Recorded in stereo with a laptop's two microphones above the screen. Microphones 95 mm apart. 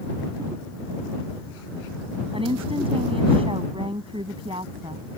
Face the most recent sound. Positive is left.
turn(degrees=-75)  # may be behind; listen again after turning